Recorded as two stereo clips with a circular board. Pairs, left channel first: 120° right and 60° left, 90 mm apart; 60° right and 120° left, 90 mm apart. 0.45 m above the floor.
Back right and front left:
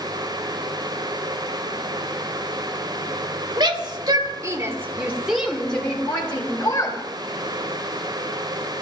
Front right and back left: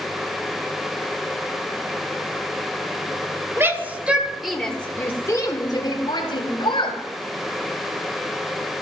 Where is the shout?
65° left, 2 m; by 7.0 s 65° right, 3 m.